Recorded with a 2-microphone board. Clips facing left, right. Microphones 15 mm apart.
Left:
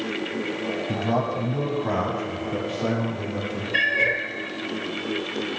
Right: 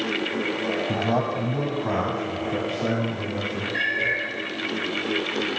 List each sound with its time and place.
0.9 s a man speaking: 5° right (ahead or behind), 1.2 m; by 3.6 s centre (ahead or behind), 3.5 m
3.7 s a cat meowing: 80° left, 2.5 m